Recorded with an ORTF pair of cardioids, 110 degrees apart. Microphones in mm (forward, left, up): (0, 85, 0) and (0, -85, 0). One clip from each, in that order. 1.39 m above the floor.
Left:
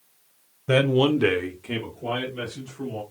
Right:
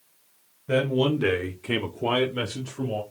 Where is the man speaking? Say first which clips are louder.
Left 3 dB; 45° left, 0.9 m; by 3.0 s 80° right, 1.4 m.